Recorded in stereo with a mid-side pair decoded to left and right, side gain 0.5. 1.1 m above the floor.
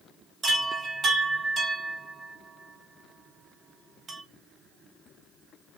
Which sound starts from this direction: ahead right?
A chime, at 0.4 s.